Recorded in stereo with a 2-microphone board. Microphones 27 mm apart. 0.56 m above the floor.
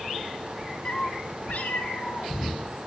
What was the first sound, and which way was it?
A cat meowing, 35° left (ahead or behind).